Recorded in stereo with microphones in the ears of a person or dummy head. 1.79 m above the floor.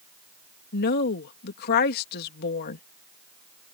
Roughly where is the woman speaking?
Left.